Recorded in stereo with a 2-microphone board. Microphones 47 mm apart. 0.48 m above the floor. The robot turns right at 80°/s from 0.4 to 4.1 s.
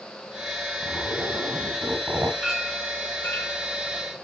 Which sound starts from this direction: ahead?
A clink, at 2.4 s.